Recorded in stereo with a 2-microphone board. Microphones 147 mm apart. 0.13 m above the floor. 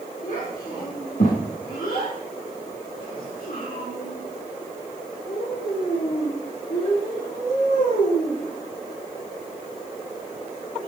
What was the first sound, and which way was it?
A child speaking, 65° left (ahead or behind).